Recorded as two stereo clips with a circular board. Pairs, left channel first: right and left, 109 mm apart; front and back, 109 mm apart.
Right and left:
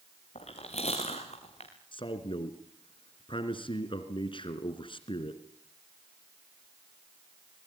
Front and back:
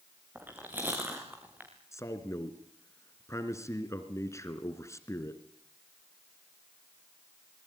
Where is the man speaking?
60° right, 3 m.